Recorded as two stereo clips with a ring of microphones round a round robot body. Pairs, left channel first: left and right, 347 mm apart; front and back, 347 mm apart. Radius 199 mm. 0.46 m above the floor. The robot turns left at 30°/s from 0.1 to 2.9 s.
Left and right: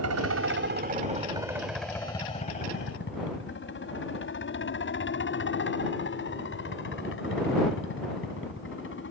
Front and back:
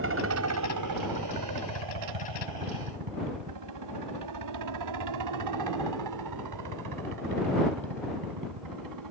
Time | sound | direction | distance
0.0 | a helicopter | 130° right | ?